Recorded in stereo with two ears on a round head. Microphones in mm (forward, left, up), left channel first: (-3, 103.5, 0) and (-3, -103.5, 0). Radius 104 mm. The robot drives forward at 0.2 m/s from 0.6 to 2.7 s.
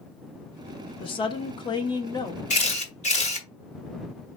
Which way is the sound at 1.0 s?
25° left (ahead or behind).